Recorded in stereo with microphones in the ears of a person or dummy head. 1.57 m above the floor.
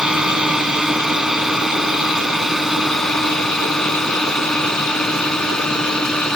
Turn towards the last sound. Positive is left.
turn(degrees=10)  # may be behind; listen again after turning